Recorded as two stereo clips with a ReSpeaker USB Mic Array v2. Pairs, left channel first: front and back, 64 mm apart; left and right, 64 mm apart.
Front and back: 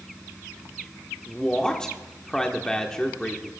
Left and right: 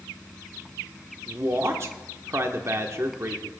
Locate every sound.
1.3 s a man speaking: 75° right, 1.2 m